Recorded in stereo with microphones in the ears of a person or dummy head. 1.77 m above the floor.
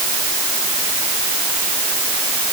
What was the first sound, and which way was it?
Only background noise.